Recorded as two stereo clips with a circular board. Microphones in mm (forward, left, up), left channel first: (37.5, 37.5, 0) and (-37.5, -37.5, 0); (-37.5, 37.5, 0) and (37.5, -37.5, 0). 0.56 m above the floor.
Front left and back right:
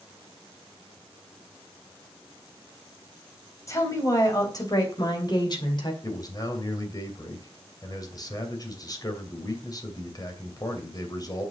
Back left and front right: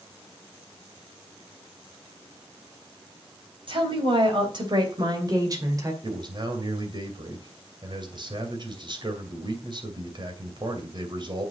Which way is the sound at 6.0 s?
5° right.